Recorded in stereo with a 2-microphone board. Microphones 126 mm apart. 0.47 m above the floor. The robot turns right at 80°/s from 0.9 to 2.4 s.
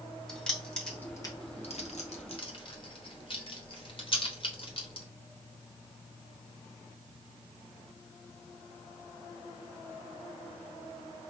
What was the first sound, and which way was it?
Keys jangling, 5° left (ahead or behind).